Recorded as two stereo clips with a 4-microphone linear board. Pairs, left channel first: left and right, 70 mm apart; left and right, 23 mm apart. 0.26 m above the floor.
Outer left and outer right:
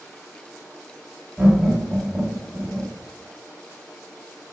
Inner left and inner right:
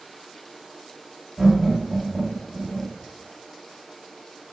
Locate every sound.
1.4 s laughter: 20° right (ahead or behind), 1.6 m